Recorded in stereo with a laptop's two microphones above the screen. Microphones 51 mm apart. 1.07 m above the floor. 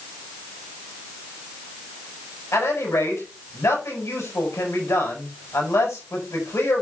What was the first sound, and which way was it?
A man speaking, 70° left (ahead or behind).